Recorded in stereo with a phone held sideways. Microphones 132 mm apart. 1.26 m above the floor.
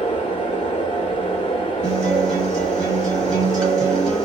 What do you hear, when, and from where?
0.0 s a fan: 40° left (ahead or behind), 1.1 m
1.8 s a guitar: 5° left (ahead or behind), 1.3 m